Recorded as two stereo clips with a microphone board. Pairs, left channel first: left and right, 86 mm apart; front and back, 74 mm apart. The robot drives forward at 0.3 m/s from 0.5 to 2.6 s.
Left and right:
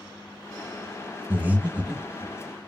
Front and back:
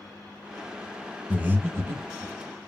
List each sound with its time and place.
1.3 s breathing: 130° right, 0.5 m; by 2.3 s 160° right, 0.7 m